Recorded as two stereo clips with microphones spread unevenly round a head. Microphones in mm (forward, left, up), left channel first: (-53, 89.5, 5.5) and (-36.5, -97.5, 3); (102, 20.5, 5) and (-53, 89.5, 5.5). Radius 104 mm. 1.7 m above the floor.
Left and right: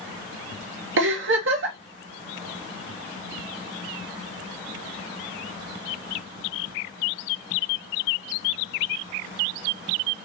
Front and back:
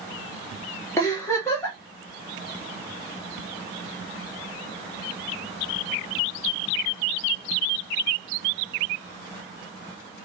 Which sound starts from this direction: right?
A giggle, at 1.0 s.